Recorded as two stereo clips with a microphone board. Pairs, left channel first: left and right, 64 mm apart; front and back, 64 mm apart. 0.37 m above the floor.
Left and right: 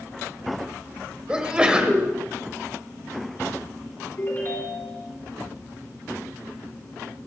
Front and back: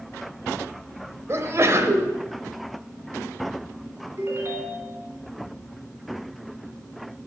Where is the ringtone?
135° left, 2.5 m.